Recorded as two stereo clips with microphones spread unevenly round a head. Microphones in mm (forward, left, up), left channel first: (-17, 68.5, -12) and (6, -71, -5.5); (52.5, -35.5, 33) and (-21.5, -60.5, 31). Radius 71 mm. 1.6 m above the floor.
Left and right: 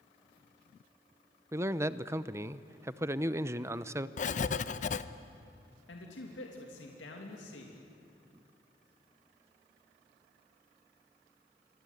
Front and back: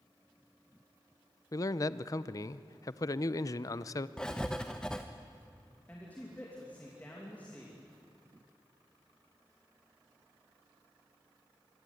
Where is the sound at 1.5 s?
15° right, 0.7 m.